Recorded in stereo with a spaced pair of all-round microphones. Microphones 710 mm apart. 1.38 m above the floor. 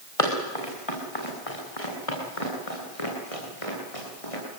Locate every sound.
0.2 s running footsteps: 50° left (ahead or behind), 6.5 m